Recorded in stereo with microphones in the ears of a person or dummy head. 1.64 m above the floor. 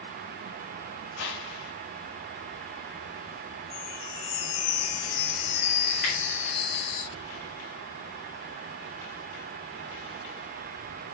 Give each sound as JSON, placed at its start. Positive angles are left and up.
{"t": 1.2, "sound": "a whoosh", "side_deg": 65, "distance_m": 4.5}
{"t": 3.7, "sound": "a chime", "side_deg": 45, "distance_m": 3.0}
{"t": 6.0, "sound": "a finger snap", "side_deg": 40, "distance_m": 7.0}